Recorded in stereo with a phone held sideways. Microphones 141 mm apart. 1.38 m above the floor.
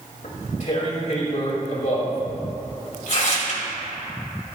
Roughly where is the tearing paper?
Left.